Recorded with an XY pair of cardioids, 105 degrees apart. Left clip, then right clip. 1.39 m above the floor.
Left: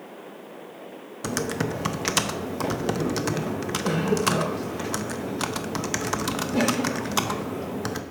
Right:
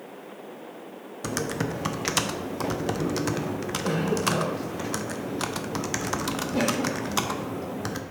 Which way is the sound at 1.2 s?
10° left.